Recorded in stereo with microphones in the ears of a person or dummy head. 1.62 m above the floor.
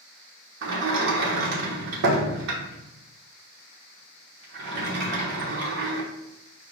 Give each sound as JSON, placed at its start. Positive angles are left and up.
{"t": 0.6, "sound": "a sliding door", "side_deg": -60, "distance_m": 0.9}